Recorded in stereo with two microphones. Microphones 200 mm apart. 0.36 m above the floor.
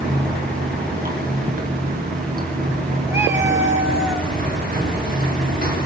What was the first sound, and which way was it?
Running water, 45° right (ahead or behind).